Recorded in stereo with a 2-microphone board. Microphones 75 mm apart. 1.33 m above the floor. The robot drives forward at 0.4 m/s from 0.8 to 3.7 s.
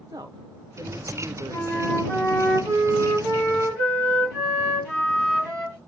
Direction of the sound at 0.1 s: 60° right (ahead or behind).